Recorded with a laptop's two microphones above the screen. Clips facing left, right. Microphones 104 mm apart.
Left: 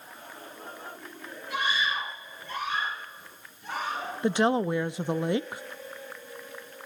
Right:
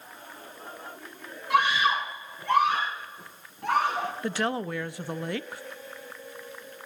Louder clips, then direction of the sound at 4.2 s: Left 8 dB; 20° left (ahead or behind).